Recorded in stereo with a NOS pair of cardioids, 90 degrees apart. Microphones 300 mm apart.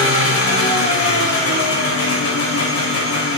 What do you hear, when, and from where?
0.0 s an engine running: 50° left, 4 m